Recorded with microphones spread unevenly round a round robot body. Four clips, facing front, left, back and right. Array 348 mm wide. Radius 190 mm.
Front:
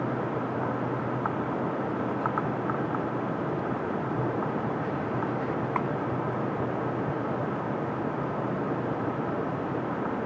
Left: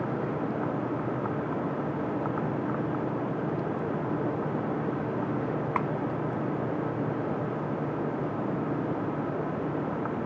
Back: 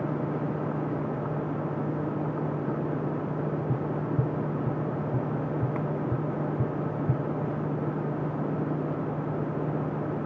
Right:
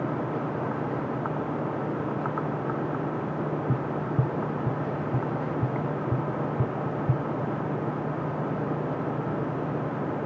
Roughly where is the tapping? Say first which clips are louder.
Right 1 dB, even; right.